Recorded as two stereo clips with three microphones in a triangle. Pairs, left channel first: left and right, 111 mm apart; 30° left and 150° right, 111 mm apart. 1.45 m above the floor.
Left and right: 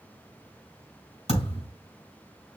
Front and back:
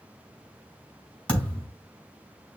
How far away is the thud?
About 4 m.